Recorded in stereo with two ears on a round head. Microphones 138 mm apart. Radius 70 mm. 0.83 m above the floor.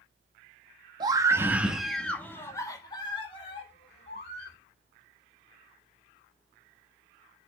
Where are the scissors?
No scissors in this recording.